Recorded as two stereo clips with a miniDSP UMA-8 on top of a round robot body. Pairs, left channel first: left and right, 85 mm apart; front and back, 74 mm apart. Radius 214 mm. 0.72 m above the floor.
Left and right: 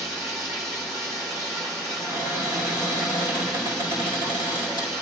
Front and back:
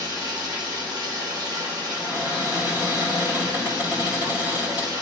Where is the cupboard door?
115° right, 4 m.